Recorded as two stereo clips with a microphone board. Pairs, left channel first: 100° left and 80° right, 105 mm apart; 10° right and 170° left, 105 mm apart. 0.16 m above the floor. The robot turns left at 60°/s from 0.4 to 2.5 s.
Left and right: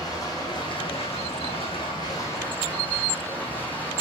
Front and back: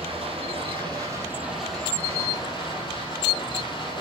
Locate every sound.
0.0 s running water: 155° left, 3.5 m; by 4.0 s 30° left, 3.5 m